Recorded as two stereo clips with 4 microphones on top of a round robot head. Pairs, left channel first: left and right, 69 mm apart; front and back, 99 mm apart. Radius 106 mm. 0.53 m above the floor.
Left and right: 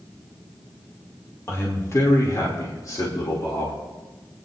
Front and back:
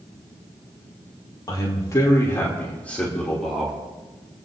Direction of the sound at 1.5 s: 45° left.